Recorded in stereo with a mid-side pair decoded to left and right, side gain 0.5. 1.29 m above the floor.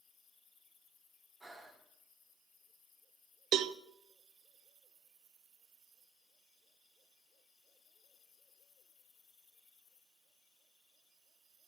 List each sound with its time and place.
1.4 s breathing: 15° right, 2 m
3.5 s a cowbell: 60° right, 0.5 m